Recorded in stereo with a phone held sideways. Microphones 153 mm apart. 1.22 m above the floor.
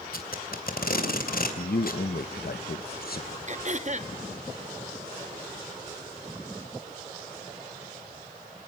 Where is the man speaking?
70° left (ahead or behind), 0.9 m.